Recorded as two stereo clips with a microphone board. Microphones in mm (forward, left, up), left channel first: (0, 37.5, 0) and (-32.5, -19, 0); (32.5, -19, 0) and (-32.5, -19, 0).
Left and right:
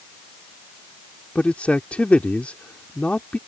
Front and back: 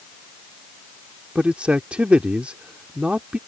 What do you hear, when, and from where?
1.4 s a man speaking: 120° left